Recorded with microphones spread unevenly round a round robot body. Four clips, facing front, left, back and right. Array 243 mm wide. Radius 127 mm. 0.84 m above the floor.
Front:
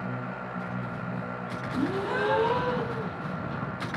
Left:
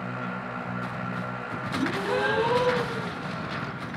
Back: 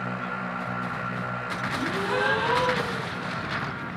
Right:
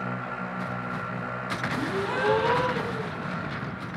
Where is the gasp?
35° left, 1.2 m.